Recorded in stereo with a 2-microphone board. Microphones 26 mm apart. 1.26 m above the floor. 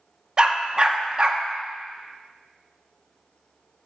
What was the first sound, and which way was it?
A dog barking, 25° right (ahead or behind).